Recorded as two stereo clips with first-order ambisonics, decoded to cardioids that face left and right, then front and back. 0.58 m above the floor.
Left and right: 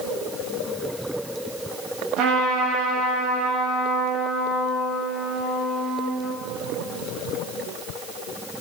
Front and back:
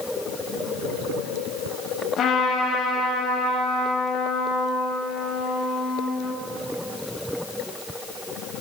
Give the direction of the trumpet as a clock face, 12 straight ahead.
2 o'clock.